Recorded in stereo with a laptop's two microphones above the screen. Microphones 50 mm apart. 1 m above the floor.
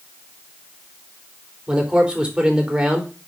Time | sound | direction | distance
1.7 | a man speaking | 20° right (ahead or behind) | 3.5 m